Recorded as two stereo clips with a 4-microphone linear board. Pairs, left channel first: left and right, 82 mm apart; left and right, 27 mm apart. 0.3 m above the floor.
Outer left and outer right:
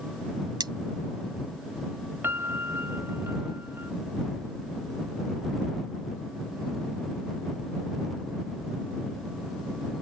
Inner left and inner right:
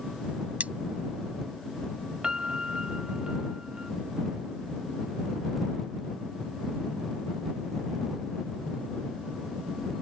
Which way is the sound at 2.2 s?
25° right (ahead or behind).